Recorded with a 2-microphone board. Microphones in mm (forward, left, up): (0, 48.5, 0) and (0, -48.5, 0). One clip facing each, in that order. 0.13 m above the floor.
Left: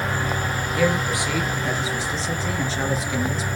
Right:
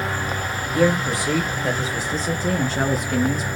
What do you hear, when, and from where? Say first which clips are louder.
0.8 s a man speaking: right 3 dB; 35° right (ahead or behind), 2.5 m; by 3.5 s 50° right (ahead or behind), 2 m